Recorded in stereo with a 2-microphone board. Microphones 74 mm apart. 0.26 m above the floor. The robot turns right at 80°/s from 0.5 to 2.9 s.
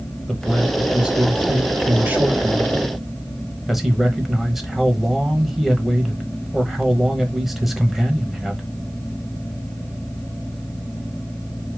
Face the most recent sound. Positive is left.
turn(degrees=0)  # may be behind; listen again after turning